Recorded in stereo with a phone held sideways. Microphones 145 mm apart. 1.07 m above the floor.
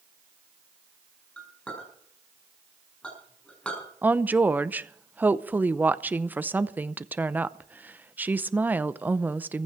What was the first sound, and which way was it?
A clink, 10° left (ahead or behind).